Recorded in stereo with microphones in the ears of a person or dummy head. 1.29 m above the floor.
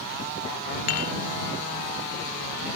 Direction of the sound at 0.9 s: 55° left (ahead or behind).